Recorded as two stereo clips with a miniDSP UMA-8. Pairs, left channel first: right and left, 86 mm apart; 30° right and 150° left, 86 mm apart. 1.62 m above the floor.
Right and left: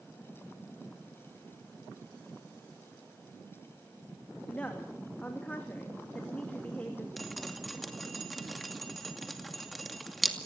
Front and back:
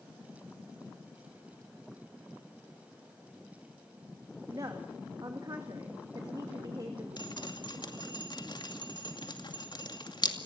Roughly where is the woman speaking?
Behind.